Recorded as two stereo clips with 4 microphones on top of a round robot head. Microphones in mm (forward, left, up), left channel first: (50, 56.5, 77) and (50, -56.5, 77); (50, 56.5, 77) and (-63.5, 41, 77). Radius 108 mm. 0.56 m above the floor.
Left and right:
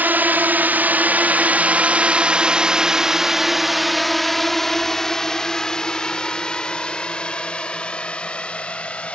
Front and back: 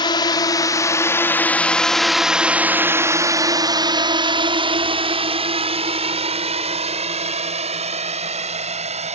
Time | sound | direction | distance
0.0 | a drone | 20° right | ?